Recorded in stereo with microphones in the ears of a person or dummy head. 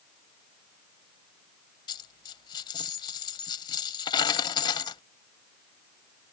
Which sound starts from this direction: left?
A dropped coin, at 1.9 s.